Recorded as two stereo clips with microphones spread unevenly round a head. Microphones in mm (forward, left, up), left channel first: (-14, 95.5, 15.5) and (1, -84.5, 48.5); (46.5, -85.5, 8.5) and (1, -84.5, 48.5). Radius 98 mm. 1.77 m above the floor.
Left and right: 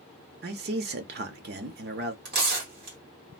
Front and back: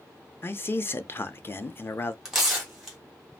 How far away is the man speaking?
About 0.5 m.